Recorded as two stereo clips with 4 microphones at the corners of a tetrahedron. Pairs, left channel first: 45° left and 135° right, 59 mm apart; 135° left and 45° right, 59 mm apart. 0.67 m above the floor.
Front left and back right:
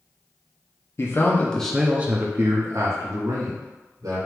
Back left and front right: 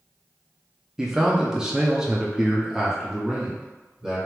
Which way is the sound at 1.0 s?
30° left.